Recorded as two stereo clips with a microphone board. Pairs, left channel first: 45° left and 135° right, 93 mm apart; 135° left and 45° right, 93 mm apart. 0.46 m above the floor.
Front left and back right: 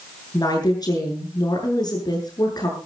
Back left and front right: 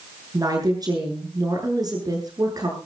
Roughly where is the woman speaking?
Ahead.